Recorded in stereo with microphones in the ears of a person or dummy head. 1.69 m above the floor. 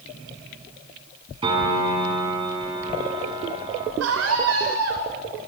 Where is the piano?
25° right (ahead or behind), 6 m.